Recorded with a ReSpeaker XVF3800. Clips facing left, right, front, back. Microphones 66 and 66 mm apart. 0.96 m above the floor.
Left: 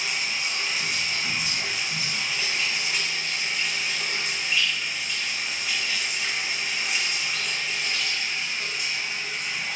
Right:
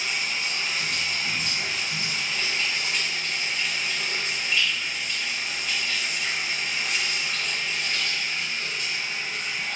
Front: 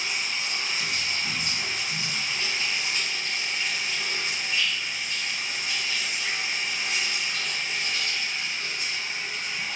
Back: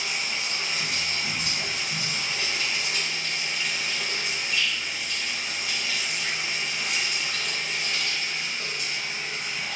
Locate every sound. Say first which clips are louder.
0.0 s running water: even, even; 170° left, 4 m